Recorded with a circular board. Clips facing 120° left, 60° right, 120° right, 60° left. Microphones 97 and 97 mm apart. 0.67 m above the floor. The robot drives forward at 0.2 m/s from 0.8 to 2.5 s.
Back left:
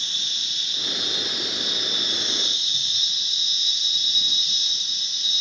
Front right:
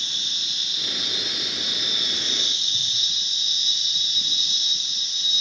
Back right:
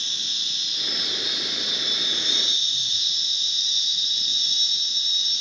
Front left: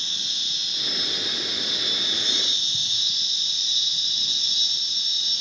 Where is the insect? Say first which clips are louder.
Even, even; 20° left, 0.8 m; by 5.4 s 35° left, 0.5 m.